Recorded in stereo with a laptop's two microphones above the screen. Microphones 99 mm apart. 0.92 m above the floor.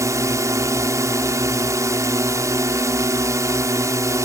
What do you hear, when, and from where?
0.0 s a drone: 35° right (ahead or behind)